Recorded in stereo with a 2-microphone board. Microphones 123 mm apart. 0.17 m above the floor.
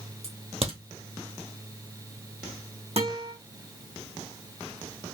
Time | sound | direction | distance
0.2 | a crack | 60° right (ahead or behind) | 2.0 m
3.0 | a guitar | 60° right (ahead or behind) | 2.5 m